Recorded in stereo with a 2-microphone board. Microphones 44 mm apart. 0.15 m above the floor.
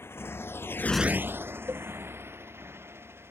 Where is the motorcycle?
75° left (ahead or behind); by 3.3 s 70° right (ahead or behind).